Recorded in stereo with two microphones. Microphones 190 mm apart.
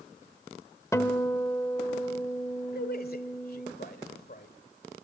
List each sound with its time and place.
0.9 s a guitar: 15° left (ahead or behind), 1.2 m
2.7 s a man speaking: 55° left (ahead or behind), 1.9 m